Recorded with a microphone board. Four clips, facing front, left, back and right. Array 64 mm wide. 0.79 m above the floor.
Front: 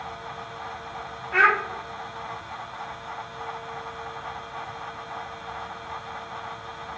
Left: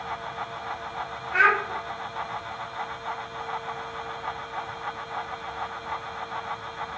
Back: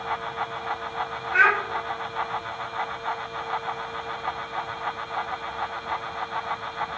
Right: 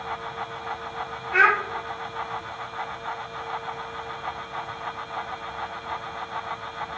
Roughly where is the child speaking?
Ahead right.